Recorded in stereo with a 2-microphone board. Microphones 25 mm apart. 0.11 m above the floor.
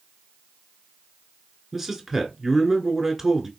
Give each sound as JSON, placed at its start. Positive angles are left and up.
{"t": 1.7, "sound": "a man speaking", "side_deg": -10, "distance_m": 1.4}